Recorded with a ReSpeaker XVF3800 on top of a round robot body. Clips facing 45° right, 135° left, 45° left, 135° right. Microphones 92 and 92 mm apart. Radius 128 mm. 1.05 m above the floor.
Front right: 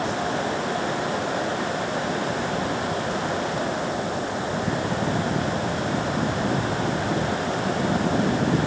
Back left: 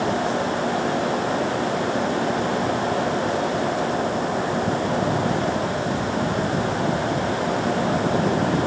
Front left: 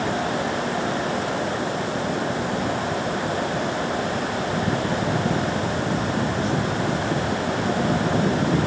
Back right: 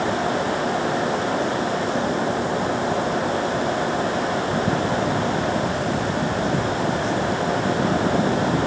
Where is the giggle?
I don't hear a giggle.